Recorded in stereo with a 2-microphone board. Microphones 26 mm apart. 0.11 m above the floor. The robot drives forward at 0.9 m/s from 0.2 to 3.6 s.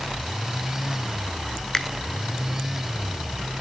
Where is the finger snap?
20° left (ahead or behind), 0.9 m.